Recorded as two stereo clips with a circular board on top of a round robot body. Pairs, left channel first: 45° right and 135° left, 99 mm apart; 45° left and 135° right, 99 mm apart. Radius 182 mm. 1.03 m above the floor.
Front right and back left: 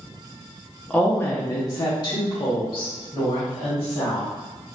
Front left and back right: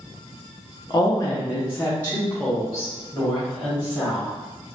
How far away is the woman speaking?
About 0.8 m.